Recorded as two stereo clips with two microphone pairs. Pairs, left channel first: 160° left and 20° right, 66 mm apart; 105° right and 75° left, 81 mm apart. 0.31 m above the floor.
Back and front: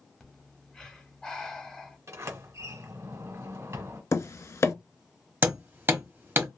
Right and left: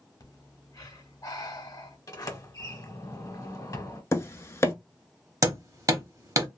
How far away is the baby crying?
I don't hear a baby crying.